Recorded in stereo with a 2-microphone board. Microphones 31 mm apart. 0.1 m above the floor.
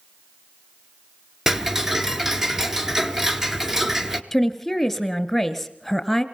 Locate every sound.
1.5 s ticking: 15° right (ahead or behind), 0.9 m
4.3 s a woman speaking: 5° left (ahead or behind), 1.2 m